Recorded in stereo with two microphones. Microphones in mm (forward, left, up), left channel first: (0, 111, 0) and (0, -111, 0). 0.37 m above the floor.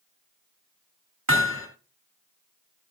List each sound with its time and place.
1.3 s hammering: 70° right (ahead or behind), 3 m